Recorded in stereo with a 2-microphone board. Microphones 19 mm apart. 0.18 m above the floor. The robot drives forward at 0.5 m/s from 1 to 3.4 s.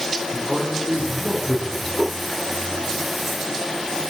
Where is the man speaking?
20° right (ahead or behind), 2.5 m; by 1.9 s 15° right (ahead or behind), 3 m.